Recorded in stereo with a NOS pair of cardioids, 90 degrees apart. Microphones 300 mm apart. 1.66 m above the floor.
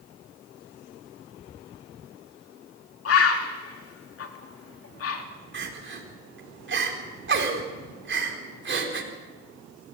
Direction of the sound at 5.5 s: 40° right.